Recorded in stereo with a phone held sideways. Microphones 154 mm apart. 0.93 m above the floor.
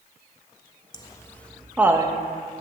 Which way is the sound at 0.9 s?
30° left (ahead or behind).